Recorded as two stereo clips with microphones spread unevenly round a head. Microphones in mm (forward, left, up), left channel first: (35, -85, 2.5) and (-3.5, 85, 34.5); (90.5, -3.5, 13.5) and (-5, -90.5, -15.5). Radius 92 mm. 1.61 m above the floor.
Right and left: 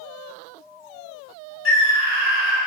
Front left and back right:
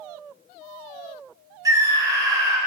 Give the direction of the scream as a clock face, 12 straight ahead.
2 o'clock.